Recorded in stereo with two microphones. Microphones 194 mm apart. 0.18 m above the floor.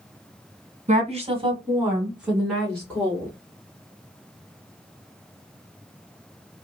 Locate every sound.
0.9 s a woman speaking: 35° right (ahead or behind), 1.6 m; by 3.3 s 10° left (ahead or behind), 2.5 m